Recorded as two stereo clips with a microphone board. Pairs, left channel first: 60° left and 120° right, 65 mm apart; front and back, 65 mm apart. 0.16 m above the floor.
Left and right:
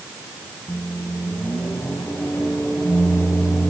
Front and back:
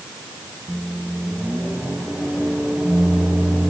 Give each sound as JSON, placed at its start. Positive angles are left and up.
{"t": 0.7, "sound": "a microwave", "azimuth_deg": 110, "distance_m": 3.5}